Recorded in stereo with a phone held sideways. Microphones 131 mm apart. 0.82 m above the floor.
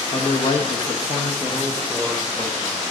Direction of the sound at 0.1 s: 45° left (ahead or behind).